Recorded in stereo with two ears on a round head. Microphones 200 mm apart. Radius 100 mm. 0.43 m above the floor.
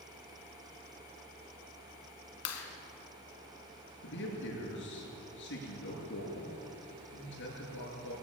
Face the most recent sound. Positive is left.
turn(degrees=55)  # may be behind; listen again after turning